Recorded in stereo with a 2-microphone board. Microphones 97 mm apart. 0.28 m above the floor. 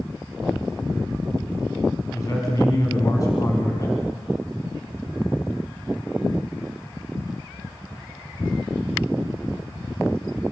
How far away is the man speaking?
About 2.5 m.